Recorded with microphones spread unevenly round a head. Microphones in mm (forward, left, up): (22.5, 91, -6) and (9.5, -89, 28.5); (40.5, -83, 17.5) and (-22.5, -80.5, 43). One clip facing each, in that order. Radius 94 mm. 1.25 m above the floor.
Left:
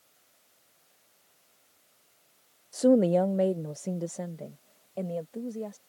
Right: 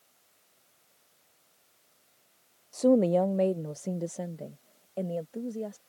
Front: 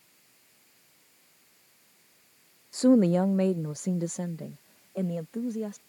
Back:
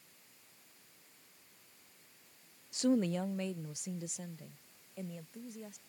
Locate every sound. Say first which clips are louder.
2.7 s a woman speaking: left 1 dB, front 11 dB; 15° left; by 5.8 s 10° right